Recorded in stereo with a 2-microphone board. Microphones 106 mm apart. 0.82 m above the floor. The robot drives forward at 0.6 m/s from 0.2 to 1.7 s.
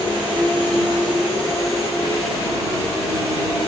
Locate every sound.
0.0 s an insect: 50° right (ahead or behind), 1.0 m; by 3.7 s 30° right (ahead or behind), 1.4 m